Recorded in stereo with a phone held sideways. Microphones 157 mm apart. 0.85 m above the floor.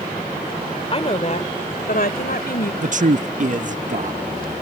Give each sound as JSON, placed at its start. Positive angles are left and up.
{"t": 0.9, "sound": "a woman speaking", "side_deg": 40}
{"t": 2.8, "sound": "a man speaking", "side_deg": -55}